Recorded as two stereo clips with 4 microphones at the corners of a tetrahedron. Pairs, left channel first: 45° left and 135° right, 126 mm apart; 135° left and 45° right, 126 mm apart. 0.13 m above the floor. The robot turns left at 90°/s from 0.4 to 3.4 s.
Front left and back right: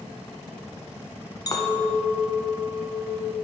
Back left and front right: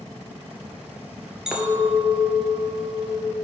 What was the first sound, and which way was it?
A clink, 35° left.